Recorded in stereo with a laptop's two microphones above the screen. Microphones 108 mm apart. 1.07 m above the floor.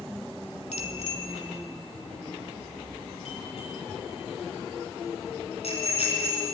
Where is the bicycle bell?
85° left, 2 m; by 6.5 s 70° left (ahead or behind), 8.5 m.